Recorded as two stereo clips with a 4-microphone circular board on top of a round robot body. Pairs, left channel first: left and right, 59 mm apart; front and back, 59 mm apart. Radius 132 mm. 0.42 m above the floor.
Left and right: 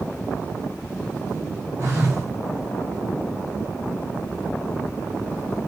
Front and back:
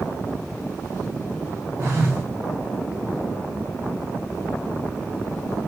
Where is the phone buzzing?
130° right, 1.4 m.